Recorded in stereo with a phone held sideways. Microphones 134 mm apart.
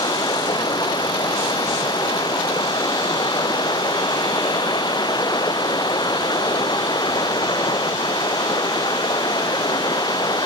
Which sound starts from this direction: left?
Running water, at 0.0 s.